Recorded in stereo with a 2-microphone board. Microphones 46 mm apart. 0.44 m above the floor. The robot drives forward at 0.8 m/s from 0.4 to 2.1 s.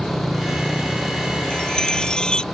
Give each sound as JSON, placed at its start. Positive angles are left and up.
{"t": 0.0, "sound": "a motorcycle", "side_deg": 5}
{"t": 1.5, "sound": "a chime", "side_deg": 15}